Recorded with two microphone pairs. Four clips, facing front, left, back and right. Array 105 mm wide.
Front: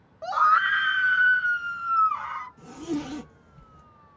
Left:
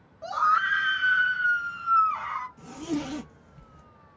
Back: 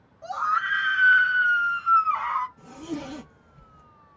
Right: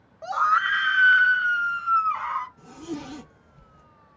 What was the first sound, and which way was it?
A scream, 20° right.